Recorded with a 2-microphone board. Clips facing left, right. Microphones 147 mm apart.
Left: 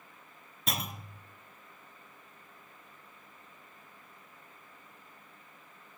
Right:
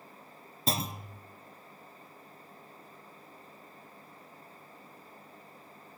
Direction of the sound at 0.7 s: 30° right (ahead or behind).